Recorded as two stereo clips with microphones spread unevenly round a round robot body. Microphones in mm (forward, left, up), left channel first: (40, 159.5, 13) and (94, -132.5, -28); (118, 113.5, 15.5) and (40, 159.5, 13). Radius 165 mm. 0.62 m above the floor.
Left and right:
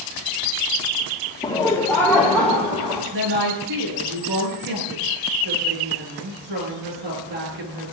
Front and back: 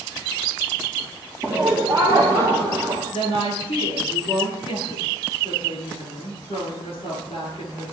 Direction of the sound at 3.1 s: 90° right.